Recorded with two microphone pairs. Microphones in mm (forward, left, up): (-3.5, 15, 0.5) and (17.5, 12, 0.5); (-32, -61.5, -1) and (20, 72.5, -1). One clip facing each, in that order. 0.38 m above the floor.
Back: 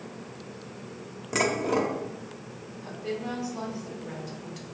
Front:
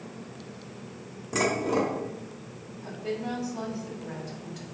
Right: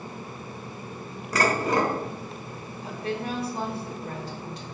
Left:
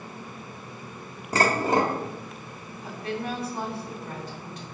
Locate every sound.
1.3 s dishes clattering: 120° left, 0.6 m
2.8 s a woman speaking: 120° right, 0.9 m